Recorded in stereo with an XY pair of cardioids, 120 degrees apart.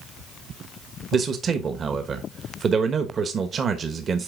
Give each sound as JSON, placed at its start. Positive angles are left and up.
{"t": 1.1, "sound": "a man speaking", "azimuth_deg": -40, "distance_m": 1.2}